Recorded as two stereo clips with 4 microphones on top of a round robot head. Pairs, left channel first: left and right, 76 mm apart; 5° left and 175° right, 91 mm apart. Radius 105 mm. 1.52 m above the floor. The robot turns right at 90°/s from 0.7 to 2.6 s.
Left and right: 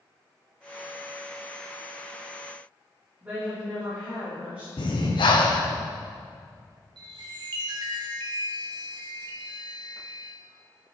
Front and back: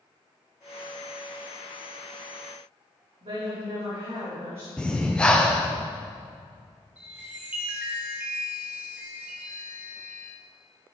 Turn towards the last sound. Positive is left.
turn(degrees=-100)